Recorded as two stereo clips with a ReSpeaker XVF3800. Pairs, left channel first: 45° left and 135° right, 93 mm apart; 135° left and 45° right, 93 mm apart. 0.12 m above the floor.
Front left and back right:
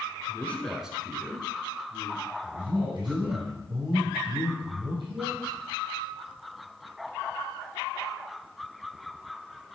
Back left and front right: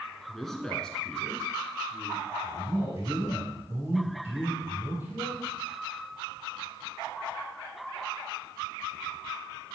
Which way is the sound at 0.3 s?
50° left.